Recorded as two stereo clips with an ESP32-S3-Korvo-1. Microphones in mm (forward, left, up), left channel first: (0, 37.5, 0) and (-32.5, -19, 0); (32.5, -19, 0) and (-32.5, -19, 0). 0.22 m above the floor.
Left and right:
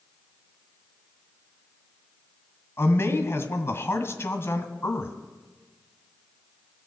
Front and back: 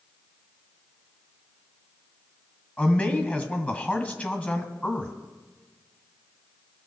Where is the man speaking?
50° left, 1.5 m.